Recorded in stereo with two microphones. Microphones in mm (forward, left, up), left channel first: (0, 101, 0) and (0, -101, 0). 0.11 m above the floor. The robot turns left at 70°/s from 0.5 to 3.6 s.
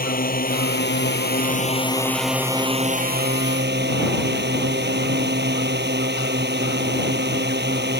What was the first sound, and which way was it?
A drone, 120° left.